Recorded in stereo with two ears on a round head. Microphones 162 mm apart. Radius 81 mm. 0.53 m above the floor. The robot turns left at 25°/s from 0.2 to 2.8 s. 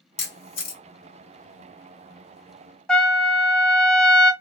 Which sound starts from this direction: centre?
A trumpet, at 2.9 s.